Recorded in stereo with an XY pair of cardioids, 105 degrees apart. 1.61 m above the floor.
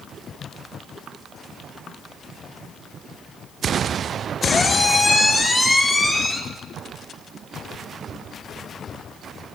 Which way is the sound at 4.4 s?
25° left.